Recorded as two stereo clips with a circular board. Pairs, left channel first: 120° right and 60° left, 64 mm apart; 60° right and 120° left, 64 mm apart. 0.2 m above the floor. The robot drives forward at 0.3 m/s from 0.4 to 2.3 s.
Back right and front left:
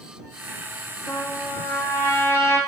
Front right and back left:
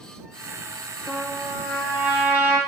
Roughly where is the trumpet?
Behind.